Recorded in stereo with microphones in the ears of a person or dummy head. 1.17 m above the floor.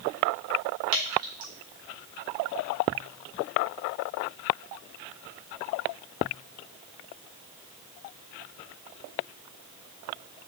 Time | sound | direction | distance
0.9 | dripping | 50° right (ahead or behind) | 1.4 m